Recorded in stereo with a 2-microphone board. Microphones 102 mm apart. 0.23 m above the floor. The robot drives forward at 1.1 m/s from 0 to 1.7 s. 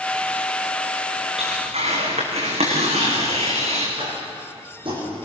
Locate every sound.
1.4 s tearing paper: 85° right, 6 m
4.0 s tapping: 55° right (ahead or behind), 9.5 m